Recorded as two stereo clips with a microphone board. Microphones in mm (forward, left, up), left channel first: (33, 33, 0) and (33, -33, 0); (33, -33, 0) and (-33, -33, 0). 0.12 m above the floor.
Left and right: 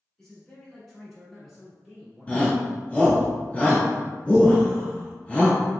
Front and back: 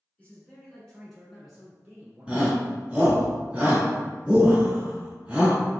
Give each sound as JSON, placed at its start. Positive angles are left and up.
{"t": 0.2, "sound": "a man speaking", "azimuth_deg": 20, "distance_m": 1.4}
{"t": 2.3, "sound": "a shout", "azimuth_deg": 130, "distance_m": 1.3}